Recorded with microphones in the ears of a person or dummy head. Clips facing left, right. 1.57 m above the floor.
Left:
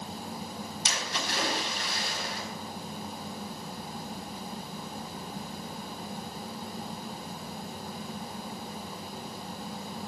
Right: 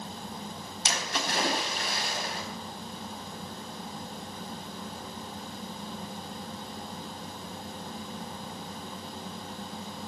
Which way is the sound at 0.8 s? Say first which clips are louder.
Right 4 dB; 50° right (ahead or behind).